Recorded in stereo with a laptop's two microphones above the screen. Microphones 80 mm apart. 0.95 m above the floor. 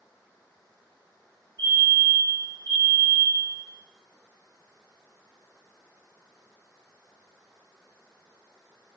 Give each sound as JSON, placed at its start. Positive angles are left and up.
{"t": 1.6, "sound": "a fire alarm", "side_deg": 45, "distance_m": 2.5}